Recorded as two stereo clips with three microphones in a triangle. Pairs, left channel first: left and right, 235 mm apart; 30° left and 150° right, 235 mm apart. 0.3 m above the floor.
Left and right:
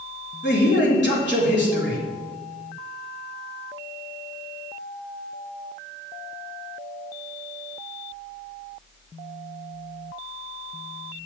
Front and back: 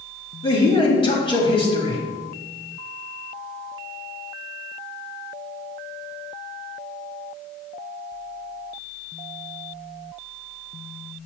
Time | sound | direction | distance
0.4 | a man speaking | 90° left | 1.7 m